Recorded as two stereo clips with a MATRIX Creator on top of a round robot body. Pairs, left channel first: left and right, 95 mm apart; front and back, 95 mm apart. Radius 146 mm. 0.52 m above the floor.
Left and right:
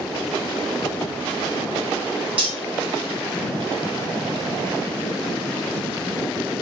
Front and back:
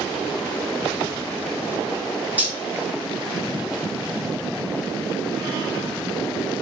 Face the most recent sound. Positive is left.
turn(degrees=-105)